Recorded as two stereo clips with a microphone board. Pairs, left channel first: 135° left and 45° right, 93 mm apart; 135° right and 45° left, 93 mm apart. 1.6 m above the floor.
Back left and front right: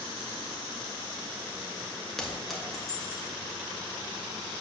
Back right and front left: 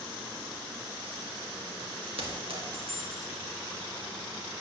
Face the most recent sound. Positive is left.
turn(degrees=50)